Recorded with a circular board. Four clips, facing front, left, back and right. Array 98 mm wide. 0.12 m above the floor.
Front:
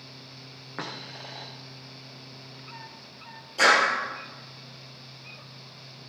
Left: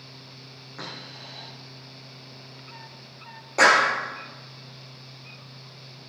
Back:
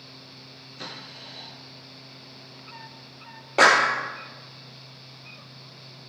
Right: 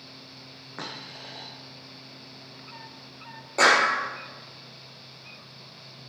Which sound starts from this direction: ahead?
A dropped coin, at 0.8 s.